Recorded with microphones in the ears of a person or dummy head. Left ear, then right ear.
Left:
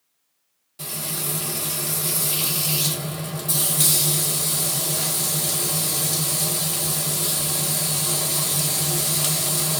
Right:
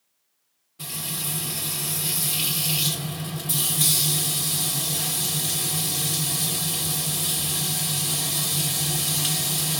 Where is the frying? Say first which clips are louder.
Left 2 dB; 30° left (ahead or behind), 1.6 m.